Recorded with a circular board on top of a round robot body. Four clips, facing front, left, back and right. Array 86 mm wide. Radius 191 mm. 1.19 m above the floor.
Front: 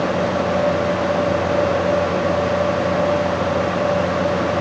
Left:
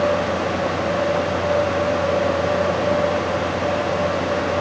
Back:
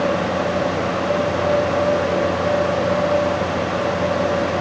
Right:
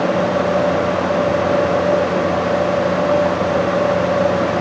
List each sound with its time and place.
Only background noise.